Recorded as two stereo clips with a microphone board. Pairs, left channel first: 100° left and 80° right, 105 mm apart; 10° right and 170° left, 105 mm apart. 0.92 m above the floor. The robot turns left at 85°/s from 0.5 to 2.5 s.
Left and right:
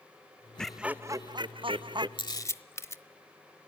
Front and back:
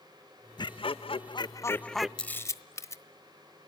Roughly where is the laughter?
Ahead.